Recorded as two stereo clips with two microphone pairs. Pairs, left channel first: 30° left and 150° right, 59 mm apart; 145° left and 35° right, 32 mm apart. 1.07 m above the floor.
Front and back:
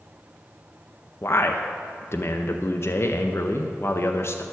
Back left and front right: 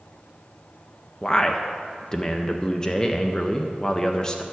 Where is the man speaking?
75° left, 0.5 m.